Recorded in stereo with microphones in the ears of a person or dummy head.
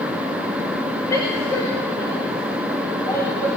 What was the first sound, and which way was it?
A woman speaking, 25° left (ahead or behind).